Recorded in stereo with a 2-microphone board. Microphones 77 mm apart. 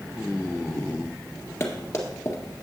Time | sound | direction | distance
1.6 | running footsteps | 35° left (ahead or behind) | 1.7 m